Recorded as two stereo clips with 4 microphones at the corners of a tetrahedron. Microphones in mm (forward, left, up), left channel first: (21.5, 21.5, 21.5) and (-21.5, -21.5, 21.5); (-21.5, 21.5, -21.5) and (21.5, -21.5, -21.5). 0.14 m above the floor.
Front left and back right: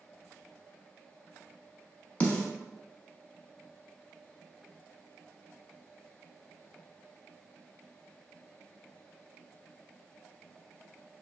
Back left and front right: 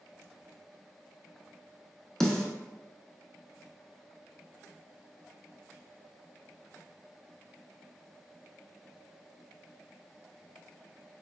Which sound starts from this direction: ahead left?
A snare drum, at 2.2 s.